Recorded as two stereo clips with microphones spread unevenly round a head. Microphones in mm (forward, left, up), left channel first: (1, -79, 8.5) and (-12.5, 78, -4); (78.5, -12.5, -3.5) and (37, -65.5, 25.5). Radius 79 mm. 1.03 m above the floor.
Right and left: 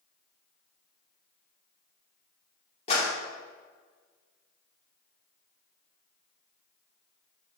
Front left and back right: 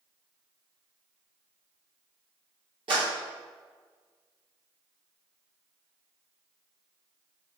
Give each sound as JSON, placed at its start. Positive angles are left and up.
{"t": 2.9, "sound": "a clap", "azimuth_deg": -140, "distance_m": 2.5}